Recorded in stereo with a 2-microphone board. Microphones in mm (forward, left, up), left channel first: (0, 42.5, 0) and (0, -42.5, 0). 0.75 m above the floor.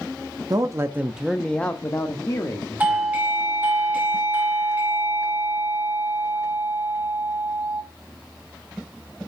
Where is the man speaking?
45° right (ahead or behind), 0.7 m; by 3.2 s 55° left (ahead or behind), 1.5 m.